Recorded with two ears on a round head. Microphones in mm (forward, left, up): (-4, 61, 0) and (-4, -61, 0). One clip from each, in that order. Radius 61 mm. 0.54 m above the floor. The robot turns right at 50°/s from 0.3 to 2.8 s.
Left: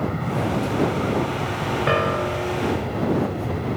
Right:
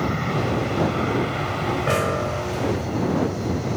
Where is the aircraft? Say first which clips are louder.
Right 1 dB; 120° right; by 3.8 s 5° left.